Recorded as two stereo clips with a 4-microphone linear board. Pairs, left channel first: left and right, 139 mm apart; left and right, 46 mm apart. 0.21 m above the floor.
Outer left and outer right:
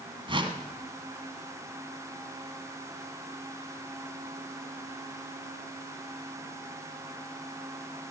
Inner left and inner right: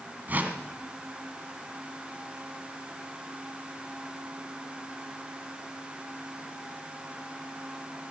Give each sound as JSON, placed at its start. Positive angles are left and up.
{"t": 0.3, "sound": "a whoosh", "side_deg": -40, "distance_m": 1.6}